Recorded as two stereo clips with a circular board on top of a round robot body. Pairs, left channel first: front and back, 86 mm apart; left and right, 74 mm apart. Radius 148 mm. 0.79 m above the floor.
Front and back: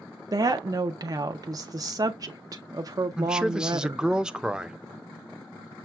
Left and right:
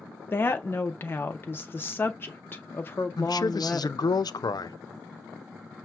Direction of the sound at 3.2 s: 100° left.